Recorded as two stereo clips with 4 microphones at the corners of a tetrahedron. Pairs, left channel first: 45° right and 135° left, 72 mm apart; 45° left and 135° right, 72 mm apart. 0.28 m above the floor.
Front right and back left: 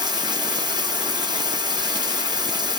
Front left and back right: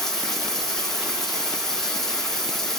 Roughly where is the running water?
Behind left.